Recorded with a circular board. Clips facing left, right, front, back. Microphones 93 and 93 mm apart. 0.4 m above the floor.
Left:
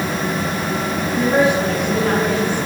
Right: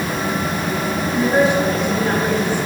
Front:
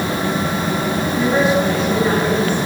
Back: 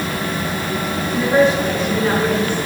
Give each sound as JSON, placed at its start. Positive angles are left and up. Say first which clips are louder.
{"t": 1.1, "sound": "a woman speaking", "louder": "even, back 2 dB", "azimuth_deg": 80, "distance_m": 5.5}